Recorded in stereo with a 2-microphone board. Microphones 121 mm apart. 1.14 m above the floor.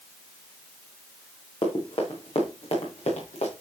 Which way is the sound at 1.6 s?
50° left (ahead or behind).